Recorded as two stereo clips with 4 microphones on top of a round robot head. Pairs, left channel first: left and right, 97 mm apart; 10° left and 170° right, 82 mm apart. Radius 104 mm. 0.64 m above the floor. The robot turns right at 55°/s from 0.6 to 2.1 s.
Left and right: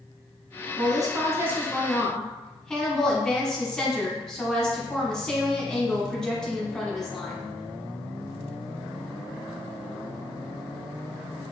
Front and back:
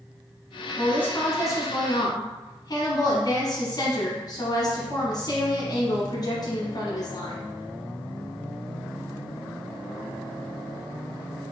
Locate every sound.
0.8 s a woman speaking: 65° right, 1.0 m; by 7.5 s 5° left, 1.0 m